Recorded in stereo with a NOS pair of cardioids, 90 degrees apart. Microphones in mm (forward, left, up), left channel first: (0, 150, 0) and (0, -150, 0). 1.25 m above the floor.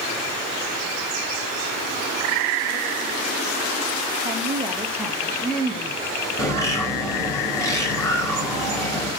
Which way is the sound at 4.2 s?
15° right.